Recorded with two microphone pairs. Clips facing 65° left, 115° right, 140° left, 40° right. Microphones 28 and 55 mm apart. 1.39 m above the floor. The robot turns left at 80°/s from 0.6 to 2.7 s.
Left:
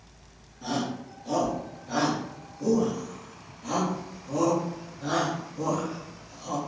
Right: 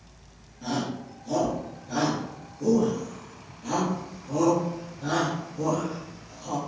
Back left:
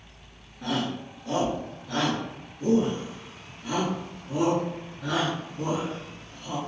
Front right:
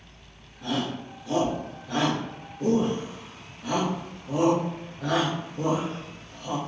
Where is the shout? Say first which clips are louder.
Even, even; 150° left, 1.1 m; by 6.6 s 15° right, 1.1 m.